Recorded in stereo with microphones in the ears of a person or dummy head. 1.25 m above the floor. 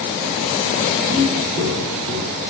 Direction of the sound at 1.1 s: 35° right (ahead or behind).